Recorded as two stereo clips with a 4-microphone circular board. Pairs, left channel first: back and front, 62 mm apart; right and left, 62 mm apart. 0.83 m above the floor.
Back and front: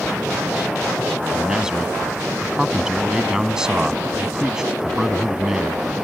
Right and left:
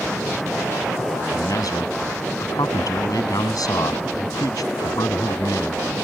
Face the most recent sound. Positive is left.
turn(degrees=-80)